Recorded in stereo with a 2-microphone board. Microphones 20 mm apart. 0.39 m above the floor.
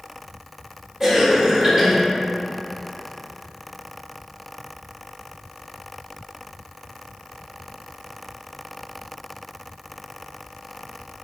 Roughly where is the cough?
Right.